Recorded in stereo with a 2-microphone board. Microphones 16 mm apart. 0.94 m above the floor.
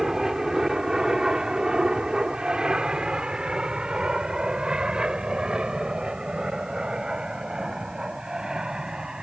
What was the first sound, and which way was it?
An aircraft, 30° right (ahead or behind).